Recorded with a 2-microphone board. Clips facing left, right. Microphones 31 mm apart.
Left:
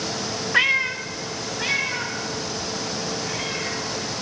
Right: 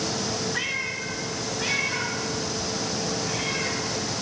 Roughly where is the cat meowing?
Left.